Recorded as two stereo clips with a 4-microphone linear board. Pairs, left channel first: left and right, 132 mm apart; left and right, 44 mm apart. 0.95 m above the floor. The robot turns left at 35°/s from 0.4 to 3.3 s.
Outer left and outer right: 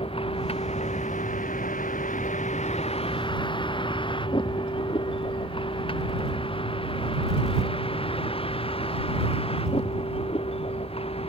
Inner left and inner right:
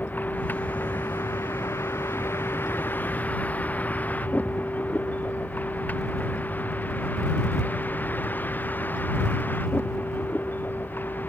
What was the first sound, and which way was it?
A vehicle, 45° left (ahead or behind).